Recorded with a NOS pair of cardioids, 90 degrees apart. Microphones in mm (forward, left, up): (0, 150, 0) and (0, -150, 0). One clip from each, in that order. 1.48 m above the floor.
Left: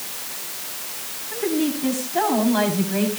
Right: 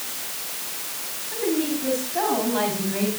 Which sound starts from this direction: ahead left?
A woman speaking, at 1.3 s.